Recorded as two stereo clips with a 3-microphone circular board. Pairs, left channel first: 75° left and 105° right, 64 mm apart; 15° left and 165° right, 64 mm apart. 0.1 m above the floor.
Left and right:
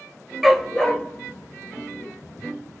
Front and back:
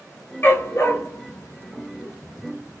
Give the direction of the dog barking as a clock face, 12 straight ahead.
1 o'clock.